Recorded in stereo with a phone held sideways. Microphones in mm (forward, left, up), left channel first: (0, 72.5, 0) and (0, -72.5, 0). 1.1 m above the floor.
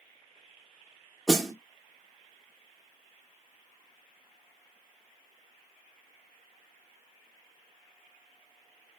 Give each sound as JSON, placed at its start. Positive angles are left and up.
{"t": 1.3, "sound": "a snare drum", "side_deg": 0, "distance_m": 0.8}